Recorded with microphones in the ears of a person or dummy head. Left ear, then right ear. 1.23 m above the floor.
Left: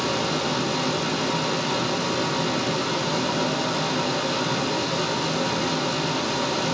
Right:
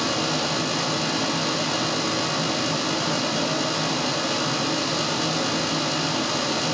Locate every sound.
0.0 s a fan: 80° right, 2.5 m